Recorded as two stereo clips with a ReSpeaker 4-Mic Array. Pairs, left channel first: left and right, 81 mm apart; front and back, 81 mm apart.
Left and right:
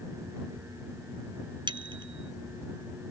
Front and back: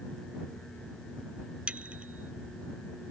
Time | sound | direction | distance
1.7 | a bicycle bell | 105° right | ?